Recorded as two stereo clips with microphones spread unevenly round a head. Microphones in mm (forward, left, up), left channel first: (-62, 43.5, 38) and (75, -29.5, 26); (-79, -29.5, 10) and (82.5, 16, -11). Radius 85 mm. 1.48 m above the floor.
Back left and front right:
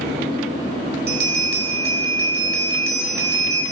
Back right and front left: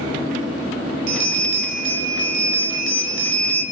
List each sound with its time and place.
1.1 s a bell: 5° right, 5 m